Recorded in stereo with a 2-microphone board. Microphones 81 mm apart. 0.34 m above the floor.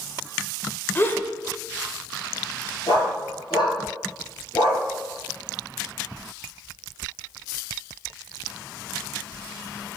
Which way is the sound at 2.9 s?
70° left (ahead or behind).